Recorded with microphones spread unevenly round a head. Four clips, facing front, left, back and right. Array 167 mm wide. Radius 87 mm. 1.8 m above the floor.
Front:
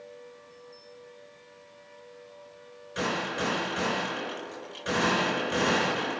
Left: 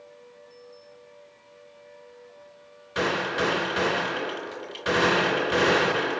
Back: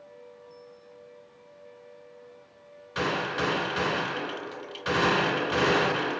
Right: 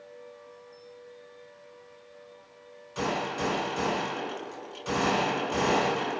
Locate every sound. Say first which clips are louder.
3.0 s a gunshot: left 4 dB, back 2 dB; 95° left, 3.5 m